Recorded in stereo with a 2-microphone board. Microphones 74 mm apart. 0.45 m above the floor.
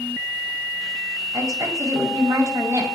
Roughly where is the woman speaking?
Right.